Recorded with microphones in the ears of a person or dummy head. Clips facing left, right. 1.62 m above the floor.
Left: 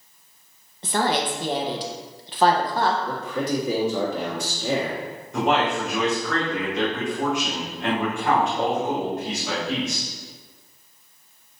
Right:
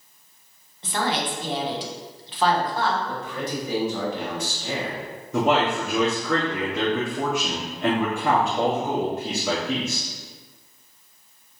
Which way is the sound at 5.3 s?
75° right (ahead or behind).